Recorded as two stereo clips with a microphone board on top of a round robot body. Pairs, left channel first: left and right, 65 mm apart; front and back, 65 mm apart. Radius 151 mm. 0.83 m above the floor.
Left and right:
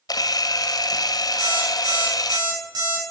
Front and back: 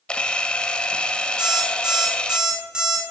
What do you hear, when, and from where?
0.1 s a camera shutter: 75° left, 1.3 m
1.4 s an alarm clock: 100° right, 7 m